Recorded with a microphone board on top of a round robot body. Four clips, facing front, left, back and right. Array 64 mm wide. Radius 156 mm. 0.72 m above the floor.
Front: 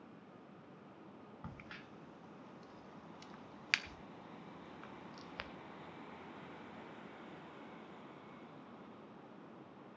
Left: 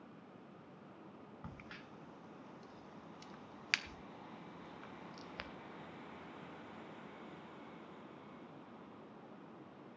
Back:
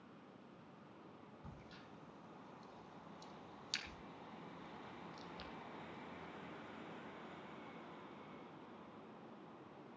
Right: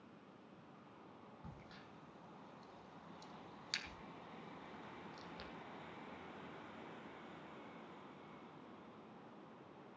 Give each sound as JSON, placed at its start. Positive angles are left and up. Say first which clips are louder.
{"t": 1.4, "sound": "a crack", "louder": "left 6 dB, front 7 dB", "azimuth_deg": 35, "distance_m": 1.1}